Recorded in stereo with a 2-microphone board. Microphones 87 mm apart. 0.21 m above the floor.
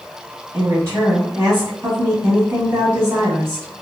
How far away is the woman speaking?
About 1.1 m.